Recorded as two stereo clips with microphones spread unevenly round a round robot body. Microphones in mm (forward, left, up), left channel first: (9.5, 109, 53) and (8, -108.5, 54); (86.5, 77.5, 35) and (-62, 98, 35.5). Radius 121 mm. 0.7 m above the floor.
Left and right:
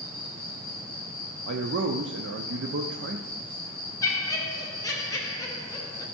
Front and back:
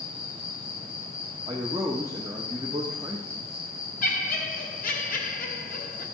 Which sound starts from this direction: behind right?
A man speaking, at 1.5 s.